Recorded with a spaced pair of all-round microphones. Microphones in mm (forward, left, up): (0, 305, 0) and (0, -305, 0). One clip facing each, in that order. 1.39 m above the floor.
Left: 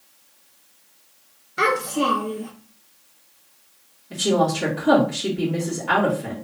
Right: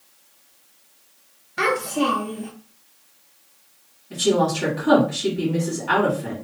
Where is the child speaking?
20° right (ahead or behind), 1.0 m.